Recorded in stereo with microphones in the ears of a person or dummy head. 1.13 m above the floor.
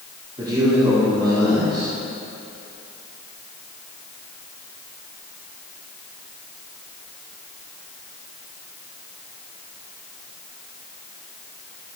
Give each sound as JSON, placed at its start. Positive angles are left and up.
{"t": 0.4, "sound": "a man speaking", "side_deg": -20, "distance_m": 2.5}